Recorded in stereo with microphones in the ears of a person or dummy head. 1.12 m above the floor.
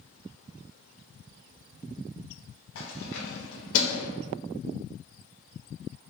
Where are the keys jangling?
75° left (ahead or behind), 1.4 m; by 4.1 s 80° left, 0.6 m.